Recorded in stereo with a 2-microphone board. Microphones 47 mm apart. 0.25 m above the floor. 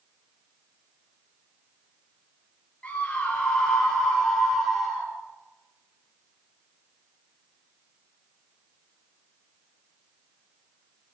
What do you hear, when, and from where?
2.8 s a scream: 25° left (ahead or behind), 6 m; by 5.1 s centre (ahead or behind), 7.5 m